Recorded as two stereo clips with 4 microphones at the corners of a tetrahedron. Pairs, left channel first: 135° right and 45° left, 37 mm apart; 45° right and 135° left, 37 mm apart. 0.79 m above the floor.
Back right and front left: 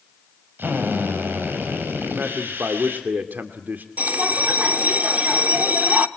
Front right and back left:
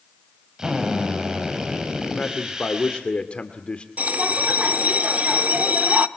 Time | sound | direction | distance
0.6 | a drill | 65° left | 5.5 m
2.1 | a man speaking | 10° left | 1.8 m
4.0 | a bell | 90° left | 1.0 m